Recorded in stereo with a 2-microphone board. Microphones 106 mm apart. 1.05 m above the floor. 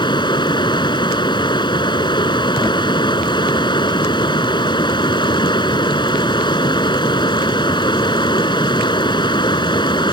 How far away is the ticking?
I don't hear ticking.